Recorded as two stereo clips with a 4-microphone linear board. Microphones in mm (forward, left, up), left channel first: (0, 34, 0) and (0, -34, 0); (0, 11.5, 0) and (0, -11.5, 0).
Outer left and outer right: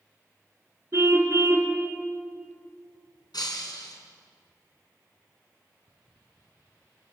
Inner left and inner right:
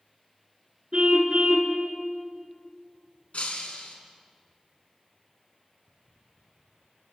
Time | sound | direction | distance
0.9 | a car horn | 40° right (ahead or behind) | 3.5 m
3.3 | breaking glass | 75° left (ahead or behind) | 3.5 m